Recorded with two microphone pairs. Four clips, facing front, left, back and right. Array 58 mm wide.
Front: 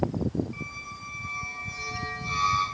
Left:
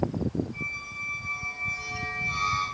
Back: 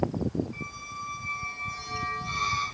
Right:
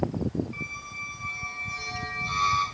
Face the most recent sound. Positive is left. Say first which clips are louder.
# left 1 dB, back 1 dB
turn(degrees=-80)